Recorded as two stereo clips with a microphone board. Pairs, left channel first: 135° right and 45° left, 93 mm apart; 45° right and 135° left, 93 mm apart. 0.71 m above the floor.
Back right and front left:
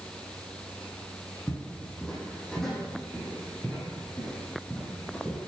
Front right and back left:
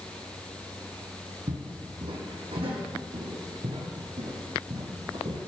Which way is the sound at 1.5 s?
145° left.